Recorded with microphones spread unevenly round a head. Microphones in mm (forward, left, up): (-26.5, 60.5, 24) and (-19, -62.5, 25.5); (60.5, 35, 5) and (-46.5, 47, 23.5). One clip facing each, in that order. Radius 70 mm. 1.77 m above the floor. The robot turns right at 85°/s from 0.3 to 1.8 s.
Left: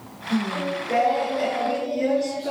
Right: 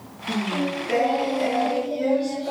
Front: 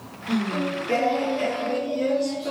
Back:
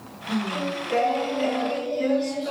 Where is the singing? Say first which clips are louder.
Even, front 2 dB; 85° right, 5 m; by 2.5 s 45° left, 5 m.